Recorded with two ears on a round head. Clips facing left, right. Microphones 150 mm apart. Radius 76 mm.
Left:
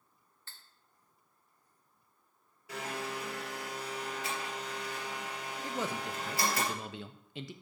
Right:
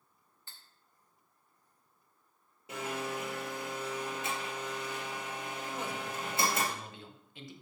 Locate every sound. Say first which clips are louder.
0.5 s cutlery clinking: even; 15° right (ahead or behind), 1.3 m
2.7 s a blender: right 2 dB; 20° right (ahead or behind), 3.5 m
5.6 s a man speaking: left 4 dB; 60° left (ahead or behind), 0.9 m